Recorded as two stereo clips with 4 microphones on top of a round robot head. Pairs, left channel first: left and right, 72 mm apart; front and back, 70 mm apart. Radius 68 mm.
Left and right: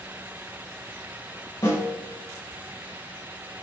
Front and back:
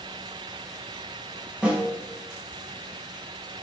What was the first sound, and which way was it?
A snare drum, 115° left.